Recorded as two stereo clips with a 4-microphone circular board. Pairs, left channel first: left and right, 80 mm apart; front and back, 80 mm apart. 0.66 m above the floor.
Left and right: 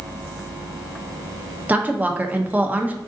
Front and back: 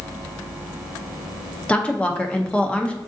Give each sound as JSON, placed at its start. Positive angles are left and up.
{"t": 1.7, "sound": "a woman speaking", "azimuth_deg": -55, "distance_m": 0.5}